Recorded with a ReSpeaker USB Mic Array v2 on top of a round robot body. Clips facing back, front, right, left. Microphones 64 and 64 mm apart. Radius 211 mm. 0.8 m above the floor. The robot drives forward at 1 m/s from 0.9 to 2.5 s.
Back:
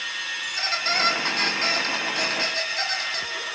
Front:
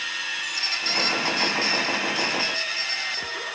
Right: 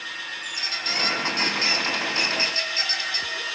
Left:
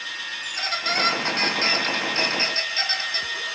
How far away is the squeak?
About 3 m.